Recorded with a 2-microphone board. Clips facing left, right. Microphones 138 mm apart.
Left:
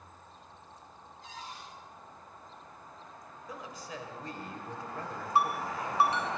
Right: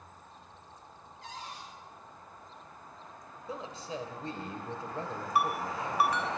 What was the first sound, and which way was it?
A cupboard door, 85° right.